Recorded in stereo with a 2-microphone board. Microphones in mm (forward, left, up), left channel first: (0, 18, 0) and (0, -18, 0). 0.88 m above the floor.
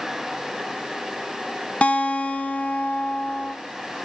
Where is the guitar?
35° left (ahead or behind), 0.6 m.